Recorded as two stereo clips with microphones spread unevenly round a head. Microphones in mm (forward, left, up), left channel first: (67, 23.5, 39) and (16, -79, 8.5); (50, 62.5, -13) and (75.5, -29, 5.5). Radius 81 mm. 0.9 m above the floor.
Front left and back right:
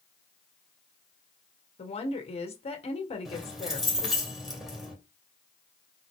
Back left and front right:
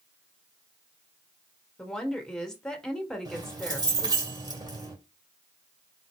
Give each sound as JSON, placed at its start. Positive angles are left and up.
{"t": 1.8, "sound": "a woman speaking", "azimuth_deg": 30, "distance_m": 1.7}
{"t": 3.2, "sound": "keys jangling", "azimuth_deg": -30, "distance_m": 2.5}